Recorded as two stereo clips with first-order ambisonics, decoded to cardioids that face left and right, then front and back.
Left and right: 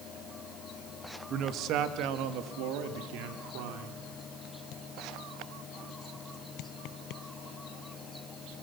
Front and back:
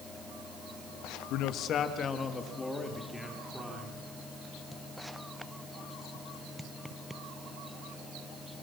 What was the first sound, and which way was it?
A man speaking, 35° right.